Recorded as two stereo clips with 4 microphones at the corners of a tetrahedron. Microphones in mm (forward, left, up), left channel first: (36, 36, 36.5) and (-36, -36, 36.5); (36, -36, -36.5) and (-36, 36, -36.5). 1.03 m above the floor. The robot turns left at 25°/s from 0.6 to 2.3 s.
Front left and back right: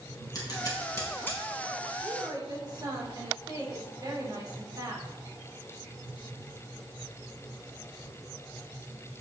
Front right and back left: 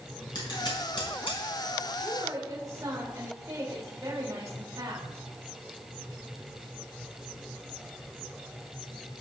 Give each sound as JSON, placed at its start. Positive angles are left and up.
{"t": 0.3, "sound": "scissors", "azimuth_deg": -5, "distance_m": 4.5}
{"t": 2.0, "sound": "a woman speaking", "azimuth_deg": -170, "distance_m": 3.5}